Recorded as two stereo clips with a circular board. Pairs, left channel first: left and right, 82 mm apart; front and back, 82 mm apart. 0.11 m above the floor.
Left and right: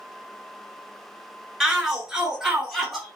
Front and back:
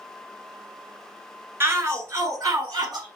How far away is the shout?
About 1.2 m.